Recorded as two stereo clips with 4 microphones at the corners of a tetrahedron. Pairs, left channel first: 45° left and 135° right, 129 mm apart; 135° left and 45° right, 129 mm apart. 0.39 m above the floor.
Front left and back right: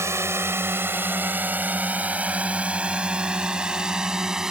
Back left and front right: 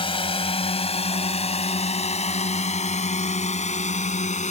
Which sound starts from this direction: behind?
A drone, at 0.0 s.